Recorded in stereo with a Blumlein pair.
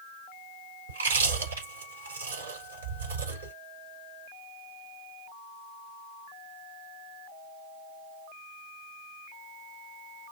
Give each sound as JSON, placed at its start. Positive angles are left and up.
{"t": 0.9, "sound": "chewing", "azimuth_deg": -70, "distance_m": 5.0}